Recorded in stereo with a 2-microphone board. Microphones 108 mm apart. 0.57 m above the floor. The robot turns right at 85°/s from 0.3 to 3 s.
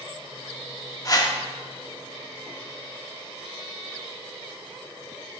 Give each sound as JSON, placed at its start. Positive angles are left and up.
{"t": 1.1, "sound": "a whoosh", "side_deg": 35, "distance_m": 1.0}